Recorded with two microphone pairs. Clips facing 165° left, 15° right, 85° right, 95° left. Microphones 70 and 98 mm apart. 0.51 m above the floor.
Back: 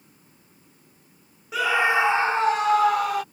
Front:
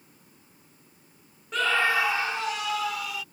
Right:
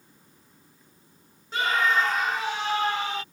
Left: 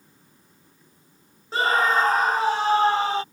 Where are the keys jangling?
I don't hear keys jangling.